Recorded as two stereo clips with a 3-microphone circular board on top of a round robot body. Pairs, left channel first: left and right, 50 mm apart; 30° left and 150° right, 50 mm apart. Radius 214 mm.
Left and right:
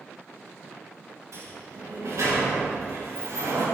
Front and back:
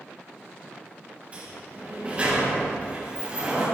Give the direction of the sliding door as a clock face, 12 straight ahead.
3 o'clock.